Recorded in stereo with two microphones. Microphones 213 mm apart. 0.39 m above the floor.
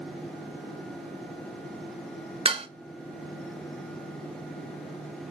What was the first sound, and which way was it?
Dishes clattering, 25° right (ahead or behind).